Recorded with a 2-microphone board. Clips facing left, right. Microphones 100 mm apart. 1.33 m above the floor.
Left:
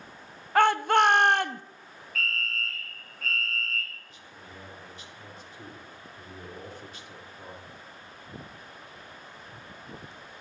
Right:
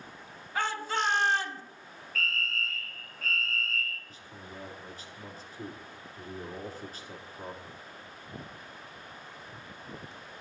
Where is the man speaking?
40° right (ahead or behind), 2.5 m.